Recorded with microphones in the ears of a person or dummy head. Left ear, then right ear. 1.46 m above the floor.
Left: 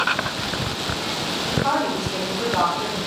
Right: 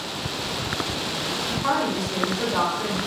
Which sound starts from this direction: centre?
A woman speaking, at 1.5 s.